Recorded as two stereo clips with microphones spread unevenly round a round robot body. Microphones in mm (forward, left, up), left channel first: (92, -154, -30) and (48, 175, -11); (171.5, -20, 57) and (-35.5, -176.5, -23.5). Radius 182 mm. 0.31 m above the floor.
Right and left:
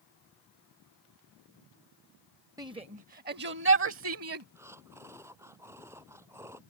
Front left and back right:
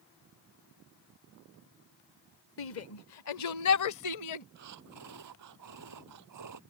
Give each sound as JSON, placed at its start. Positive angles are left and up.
{"t": 2.6, "sound": "a shout", "azimuth_deg": 20}
{"t": 4.5, "sound": "breathing", "azimuth_deg": 180}